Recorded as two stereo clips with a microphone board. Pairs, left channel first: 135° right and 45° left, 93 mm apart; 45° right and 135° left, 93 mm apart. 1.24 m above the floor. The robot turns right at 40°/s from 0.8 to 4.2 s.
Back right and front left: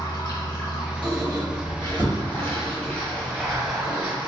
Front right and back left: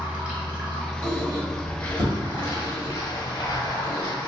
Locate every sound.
0.0 s running water: 150° right, 1.3 m; by 4.3 s 15° right, 1.3 m
1.0 s a squeak: 75° left, 1.9 m; by 4.1 s 160° right, 1.9 m